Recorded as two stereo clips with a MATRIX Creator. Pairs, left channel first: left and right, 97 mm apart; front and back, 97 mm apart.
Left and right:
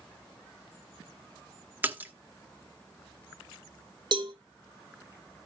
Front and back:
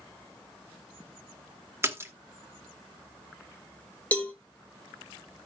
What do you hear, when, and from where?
1.8 s a splash: 140° right, 1.1 m
4.1 s a cowbell: 70° right, 1.1 m